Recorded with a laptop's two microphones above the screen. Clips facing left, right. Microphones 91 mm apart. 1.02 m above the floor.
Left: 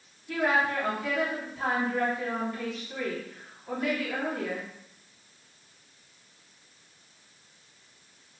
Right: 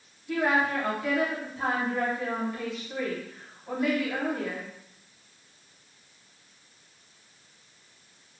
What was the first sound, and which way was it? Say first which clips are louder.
A woman speaking: right 1 dB; 15° right (ahead or behind).